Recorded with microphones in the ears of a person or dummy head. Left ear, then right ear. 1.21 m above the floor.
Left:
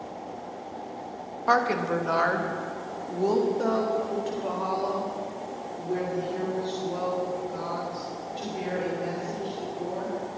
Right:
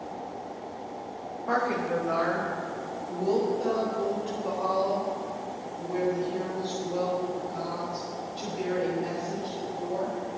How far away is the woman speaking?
About 1.2 m.